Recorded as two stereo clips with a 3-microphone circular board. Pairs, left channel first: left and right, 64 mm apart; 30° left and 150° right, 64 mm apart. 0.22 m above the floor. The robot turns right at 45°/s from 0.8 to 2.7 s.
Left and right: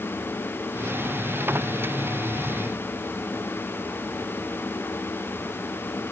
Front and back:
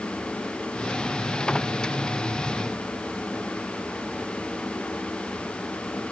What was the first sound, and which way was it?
Only background noise.